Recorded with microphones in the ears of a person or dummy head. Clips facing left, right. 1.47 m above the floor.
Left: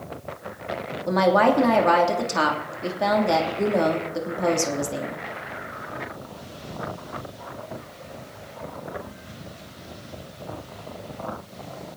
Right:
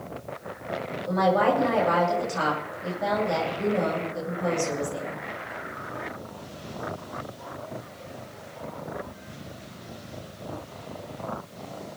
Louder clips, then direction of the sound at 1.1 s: Left 3 dB; 80° left.